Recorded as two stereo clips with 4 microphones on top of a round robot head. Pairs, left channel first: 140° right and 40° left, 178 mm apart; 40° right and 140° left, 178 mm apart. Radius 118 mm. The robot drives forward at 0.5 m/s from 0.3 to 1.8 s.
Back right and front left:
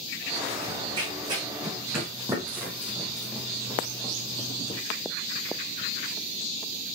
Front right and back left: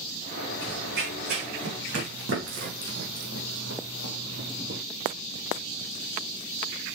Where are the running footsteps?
105° left, 4.5 m; by 4.8 s 170° left, 1.7 m.